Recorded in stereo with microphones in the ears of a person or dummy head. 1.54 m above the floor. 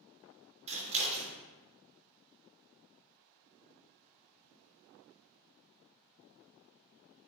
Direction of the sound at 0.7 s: 35° right (ahead or behind).